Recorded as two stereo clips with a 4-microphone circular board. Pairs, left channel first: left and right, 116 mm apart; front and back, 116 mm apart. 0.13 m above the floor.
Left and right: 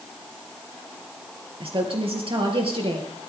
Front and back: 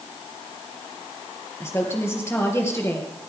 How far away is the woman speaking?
About 3 m.